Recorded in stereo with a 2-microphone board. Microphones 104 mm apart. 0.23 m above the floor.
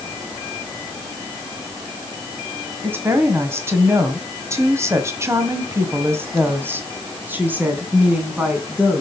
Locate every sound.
2.8 s a woman speaking: 20° right (ahead or behind), 1.8 m; by 9.0 s 15° right (ahead or behind), 2.5 m